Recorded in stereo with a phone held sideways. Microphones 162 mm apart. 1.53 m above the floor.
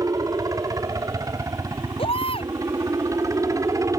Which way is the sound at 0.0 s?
20° right (ahead or behind).